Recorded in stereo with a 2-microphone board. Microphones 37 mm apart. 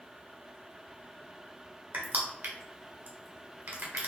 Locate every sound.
1.9 s crushing: 55° right (ahead or behind), 1.3 m